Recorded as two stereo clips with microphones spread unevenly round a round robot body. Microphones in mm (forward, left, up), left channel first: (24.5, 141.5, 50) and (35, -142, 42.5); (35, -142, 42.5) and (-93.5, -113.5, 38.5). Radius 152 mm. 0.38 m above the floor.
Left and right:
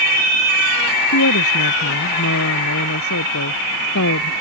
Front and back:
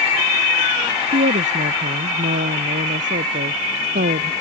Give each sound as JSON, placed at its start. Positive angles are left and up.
{"t": 1.1, "sound": "a woman speaking", "azimuth_deg": 135}